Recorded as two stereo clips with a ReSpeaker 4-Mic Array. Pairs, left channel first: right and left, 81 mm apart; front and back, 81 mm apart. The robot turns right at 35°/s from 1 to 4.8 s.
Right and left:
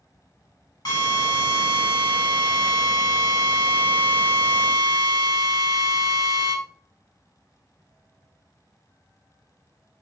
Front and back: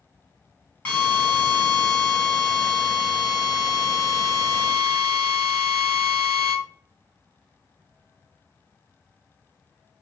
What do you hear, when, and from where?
0.8 s a drill: 70° right, 1.7 m; by 6.5 s 65° left, 1.7 m